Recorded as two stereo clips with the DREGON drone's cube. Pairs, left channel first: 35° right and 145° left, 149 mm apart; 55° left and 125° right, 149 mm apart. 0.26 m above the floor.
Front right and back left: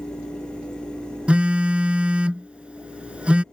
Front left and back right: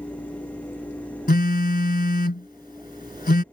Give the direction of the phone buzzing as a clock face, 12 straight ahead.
10 o'clock.